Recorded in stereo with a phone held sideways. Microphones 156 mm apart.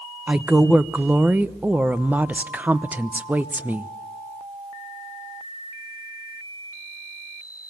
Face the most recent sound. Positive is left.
turn(degrees=-10)  # may be behind; listen again after turning